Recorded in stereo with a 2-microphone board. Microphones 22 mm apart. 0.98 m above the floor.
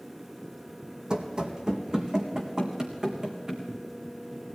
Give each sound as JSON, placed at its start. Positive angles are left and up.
{"t": 1.1, "sound": "running footsteps", "side_deg": -40, "distance_m": 2.5}